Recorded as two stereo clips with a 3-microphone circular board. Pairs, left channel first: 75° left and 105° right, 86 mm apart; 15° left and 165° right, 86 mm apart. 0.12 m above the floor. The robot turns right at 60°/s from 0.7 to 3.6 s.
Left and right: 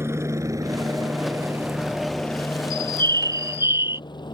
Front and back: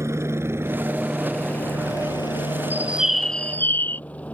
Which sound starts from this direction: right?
A bird, at 2.7 s.